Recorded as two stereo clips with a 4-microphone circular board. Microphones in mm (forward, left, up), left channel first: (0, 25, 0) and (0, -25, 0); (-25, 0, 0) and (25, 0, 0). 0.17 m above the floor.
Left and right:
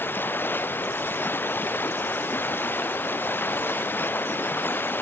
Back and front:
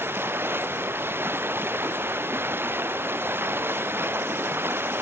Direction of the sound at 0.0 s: 40° left.